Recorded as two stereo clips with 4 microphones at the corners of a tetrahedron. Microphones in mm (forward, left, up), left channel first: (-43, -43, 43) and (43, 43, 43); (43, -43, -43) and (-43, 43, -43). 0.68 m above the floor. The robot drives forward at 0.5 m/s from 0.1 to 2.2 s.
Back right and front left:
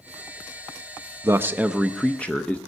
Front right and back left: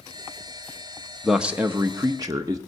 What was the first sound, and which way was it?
A man speaking, 50° left.